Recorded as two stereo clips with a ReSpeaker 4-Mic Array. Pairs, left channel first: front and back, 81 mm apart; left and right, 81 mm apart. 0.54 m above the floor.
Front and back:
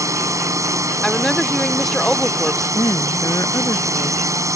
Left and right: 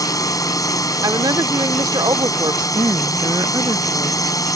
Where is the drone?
130° left.